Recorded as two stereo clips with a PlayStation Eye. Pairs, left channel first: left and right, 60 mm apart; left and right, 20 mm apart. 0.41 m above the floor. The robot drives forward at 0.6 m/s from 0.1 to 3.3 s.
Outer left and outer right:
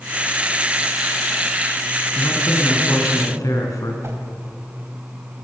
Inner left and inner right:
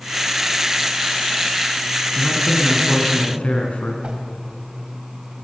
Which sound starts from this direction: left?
A man speaking, at 2.1 s.